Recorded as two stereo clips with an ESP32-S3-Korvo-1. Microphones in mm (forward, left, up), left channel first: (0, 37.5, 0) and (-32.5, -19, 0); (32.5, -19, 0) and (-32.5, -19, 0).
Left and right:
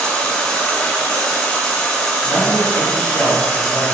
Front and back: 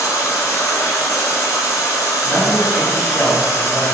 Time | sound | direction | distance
0.0 | running water | 10° right | 0.9 m
2.2 | a man speaking | 70° left | 1.5 m